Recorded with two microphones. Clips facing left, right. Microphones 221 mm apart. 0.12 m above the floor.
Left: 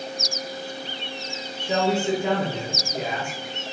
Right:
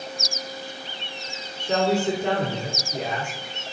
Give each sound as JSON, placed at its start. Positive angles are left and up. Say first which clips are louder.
{"t": 1.6, "sound": "a man speaking", "louder": "right 1 dB", "side_deg": 10, "distance_m": 1.7}